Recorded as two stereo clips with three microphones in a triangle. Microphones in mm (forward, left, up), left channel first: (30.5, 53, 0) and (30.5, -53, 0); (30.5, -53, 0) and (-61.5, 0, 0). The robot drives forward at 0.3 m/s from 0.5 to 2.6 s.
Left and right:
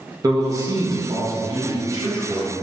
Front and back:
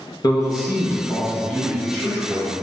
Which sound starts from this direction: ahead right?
A man speaking, at 0.2 s.